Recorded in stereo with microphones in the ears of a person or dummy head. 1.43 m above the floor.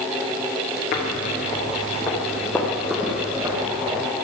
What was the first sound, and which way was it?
Footsteps, 35° left (ahead or behind).